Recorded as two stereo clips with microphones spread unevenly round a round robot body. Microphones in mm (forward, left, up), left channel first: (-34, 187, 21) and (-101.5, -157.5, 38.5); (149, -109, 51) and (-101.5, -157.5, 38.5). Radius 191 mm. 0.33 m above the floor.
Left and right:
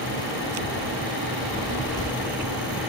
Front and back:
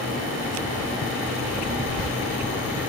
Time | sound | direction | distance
1.4 | a child speaking | 120° left | 8.5 m